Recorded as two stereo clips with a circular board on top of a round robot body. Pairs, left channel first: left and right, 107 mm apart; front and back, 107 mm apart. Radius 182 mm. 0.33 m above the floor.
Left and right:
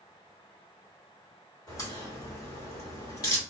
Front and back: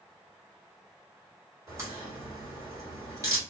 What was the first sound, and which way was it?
A crack, 135° left.